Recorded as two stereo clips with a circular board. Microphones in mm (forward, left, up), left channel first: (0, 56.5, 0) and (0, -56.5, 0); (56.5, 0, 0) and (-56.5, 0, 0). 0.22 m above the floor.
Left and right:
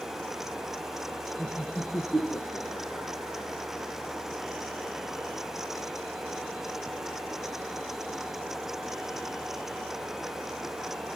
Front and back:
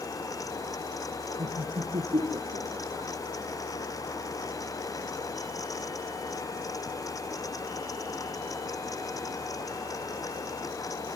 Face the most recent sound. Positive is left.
turn(degrees=170)